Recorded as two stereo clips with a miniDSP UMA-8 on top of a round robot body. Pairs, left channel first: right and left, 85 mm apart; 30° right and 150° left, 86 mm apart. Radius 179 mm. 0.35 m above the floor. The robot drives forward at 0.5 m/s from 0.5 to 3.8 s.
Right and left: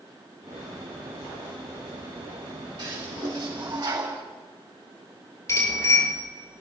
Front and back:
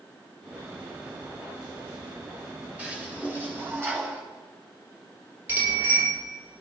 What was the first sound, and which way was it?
A toilet flushing, 75° left.